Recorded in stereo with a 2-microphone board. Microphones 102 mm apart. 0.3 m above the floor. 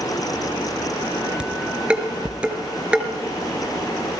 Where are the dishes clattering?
10° right (ahead or behind), 3 m.